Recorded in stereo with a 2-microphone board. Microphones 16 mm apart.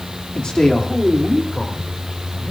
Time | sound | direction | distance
0.3 | a man speaking | 55° left (ahead or behind) | 1.7 m